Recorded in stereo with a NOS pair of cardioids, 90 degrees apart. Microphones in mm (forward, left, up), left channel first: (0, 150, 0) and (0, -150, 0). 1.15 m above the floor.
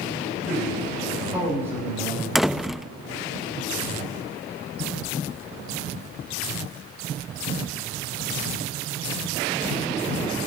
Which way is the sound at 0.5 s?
Straight ahead.